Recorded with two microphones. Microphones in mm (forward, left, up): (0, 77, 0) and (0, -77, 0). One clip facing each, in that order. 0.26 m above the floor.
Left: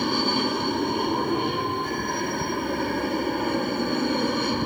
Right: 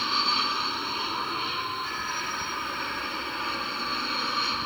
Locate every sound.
0.0 s an aircraft: 50° left (ahead or behind)